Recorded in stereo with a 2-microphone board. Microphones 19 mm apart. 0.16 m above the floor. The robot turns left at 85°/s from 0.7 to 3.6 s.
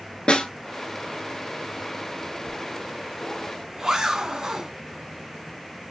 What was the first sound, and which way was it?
A snare drum, 60° left (ahead or behind).